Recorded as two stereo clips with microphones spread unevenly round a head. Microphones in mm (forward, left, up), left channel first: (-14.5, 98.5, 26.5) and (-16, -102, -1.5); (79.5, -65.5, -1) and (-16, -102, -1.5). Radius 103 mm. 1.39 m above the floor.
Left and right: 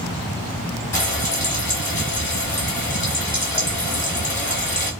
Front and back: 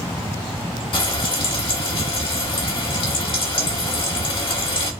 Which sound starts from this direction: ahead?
Frying, at 0.9 s.